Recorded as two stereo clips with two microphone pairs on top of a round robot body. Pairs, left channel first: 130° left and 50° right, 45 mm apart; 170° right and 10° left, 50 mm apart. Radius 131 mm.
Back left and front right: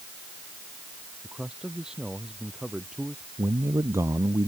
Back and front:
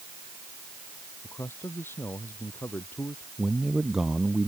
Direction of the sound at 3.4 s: 70° right.